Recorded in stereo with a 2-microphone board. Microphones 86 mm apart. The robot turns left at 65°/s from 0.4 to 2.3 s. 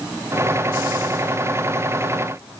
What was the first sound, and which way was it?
Only background noise.